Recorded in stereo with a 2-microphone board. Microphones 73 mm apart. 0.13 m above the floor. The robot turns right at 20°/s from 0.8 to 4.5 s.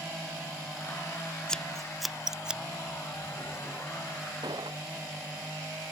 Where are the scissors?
10° left (ahead or behind); by 2.6 s 15° right (ahead or behind).